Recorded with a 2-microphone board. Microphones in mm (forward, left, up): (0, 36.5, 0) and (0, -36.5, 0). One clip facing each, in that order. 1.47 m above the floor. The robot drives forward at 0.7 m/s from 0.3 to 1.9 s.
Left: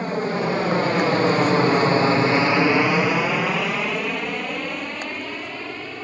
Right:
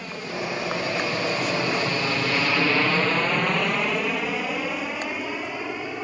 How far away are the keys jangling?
I don't hear keys jangling.